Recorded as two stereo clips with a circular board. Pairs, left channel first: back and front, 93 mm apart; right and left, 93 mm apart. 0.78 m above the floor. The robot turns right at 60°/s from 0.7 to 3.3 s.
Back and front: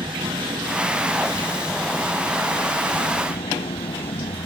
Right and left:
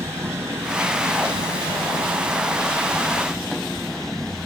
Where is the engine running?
30° left; by 4.5 s 175° right.